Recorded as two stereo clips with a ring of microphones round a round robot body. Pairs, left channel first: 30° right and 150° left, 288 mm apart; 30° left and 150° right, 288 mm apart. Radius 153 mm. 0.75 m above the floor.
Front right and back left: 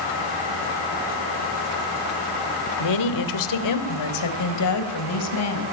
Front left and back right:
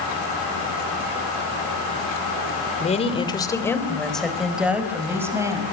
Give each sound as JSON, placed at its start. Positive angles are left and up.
{"t": 2.8, "sound": "a woman speaking", "azimuth_deg": -35, "distance_m": 2.5}